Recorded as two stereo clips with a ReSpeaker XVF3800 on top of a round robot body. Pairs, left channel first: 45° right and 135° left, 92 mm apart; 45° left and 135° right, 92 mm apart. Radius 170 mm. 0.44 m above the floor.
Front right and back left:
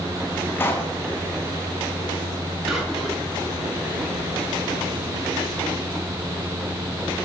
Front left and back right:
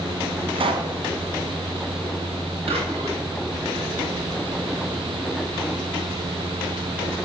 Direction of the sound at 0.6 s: 110° right.